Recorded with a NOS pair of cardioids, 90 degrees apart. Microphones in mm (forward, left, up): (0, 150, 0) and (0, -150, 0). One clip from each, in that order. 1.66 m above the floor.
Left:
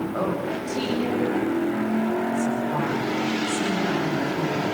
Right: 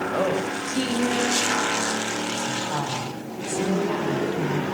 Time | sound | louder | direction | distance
0.1 | a woman speaking | right 2 dB | 40° right | 9.5 m